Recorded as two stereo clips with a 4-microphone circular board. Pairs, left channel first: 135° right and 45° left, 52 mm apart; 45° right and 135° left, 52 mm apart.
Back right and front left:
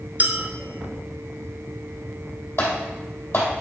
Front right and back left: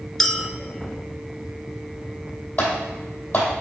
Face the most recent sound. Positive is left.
turn(degrees=-105)